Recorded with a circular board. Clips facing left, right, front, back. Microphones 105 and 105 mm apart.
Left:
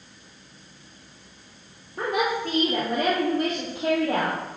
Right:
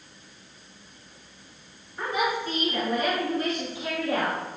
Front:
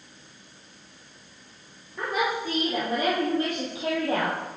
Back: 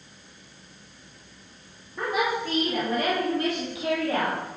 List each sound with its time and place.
2.0 s a woman speaking: 95° left, 3 m; by 4.4 s 50° left, 4.5 m